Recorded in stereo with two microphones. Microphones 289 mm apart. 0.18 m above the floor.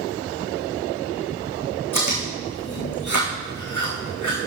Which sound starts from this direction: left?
Chewing, at 1.9 s.